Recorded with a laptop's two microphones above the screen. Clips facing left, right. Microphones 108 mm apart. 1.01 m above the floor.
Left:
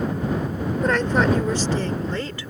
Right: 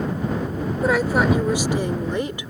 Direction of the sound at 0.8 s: 5° right (ahead or behind).